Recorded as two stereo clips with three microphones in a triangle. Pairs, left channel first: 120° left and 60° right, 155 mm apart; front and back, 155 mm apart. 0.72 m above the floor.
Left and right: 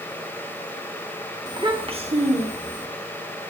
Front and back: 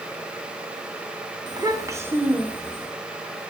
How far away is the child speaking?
About 1.2 m.